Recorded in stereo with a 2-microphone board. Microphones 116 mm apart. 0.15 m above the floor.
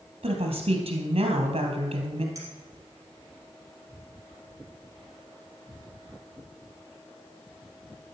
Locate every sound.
0.2 s a woman speaking: 55° right (ahead or behind), 3 m
2.4 s a clink: 30° right (ahead or behind), 3 m